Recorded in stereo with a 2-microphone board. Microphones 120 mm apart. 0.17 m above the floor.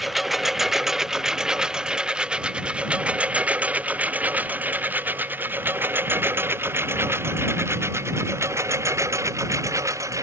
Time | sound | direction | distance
0.0 | a lawn mower | centre (ahead or behind) | ?